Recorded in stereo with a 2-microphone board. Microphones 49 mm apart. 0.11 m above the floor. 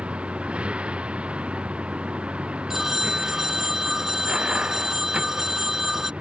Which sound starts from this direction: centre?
A phone ringing, at 2.7 s.